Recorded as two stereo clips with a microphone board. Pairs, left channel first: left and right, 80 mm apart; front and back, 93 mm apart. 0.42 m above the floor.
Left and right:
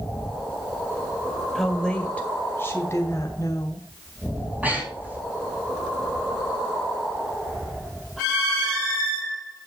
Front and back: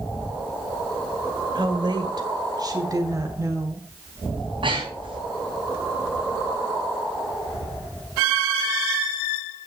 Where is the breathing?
160° right, 4 m.